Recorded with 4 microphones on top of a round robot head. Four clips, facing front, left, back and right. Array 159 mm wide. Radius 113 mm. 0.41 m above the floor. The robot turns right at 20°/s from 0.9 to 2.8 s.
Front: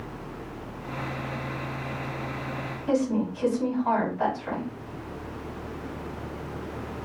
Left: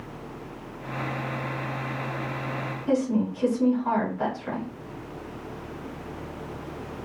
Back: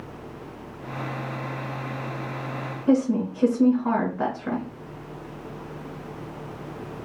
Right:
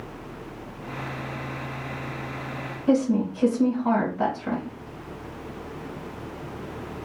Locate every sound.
2.9 s a woman speaking: 155° right, 2.5 m